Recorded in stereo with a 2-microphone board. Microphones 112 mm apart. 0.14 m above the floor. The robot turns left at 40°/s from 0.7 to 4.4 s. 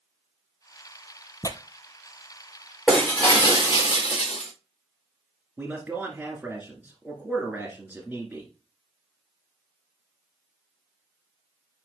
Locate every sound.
1.4 s tearing paper: 30° left (ahead or behind), 0.6 m; by 1.6 s 35° left (ahead or behind), 0.6 m
2.9 s breaking glass: 175° left, 3.5 m; by 4.5 s 110° left, 3.5 m
5.6 s a man speaking: 15° right (ahead or behind), 1.6 m